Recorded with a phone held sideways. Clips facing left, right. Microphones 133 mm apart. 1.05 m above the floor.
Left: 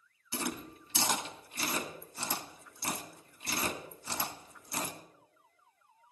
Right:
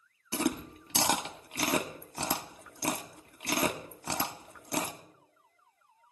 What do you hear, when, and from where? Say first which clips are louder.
0.3 s chewing: right 7 dB; 65° right (ahead or behind), 1.2 m